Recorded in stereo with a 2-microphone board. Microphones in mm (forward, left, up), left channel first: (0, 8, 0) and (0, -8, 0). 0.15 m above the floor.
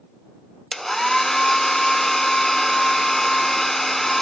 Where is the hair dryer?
20° left (ahead or behind).